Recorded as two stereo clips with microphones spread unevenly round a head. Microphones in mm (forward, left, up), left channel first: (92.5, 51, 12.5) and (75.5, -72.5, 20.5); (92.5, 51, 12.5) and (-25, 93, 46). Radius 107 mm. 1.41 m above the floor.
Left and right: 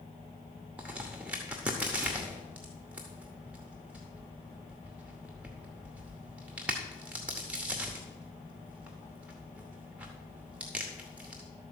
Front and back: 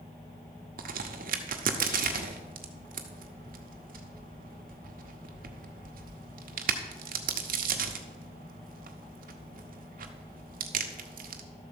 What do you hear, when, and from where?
0.8 s a crack: straight behind, 0.8 m